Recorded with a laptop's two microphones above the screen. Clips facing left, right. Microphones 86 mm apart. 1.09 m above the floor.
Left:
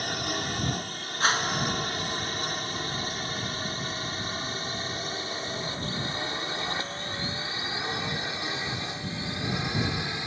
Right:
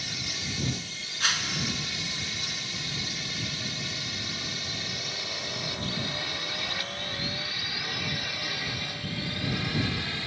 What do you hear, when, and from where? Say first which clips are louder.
0.0 s a drone: left 8 dB; 50° left (ahead or behind); by 10.3 s 20° left (ahead or behind)
1.2 s a whoosh: left 6 dB; 35° left (ahead or behind)